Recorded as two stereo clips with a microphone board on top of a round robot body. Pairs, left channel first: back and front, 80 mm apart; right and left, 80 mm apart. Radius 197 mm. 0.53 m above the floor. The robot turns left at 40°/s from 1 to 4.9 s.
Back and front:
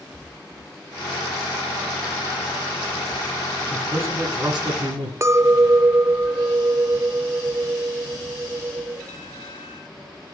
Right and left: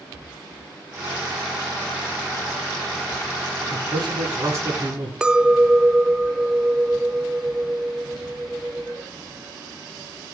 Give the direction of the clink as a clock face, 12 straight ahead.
11 o'clock.